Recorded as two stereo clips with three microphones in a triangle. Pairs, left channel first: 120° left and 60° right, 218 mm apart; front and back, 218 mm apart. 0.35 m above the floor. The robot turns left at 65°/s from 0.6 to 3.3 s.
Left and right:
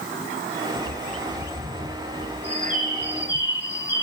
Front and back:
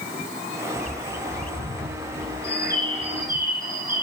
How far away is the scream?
No scream in this recording.